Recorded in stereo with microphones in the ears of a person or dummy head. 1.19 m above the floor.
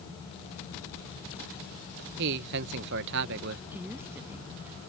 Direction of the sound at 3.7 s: 10° right (ahead or behind).